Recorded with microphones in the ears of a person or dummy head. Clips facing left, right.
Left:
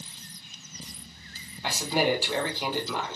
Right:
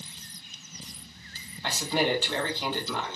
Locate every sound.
1.6 s a man speaking: 10° left (ahead or behind), 1.6 m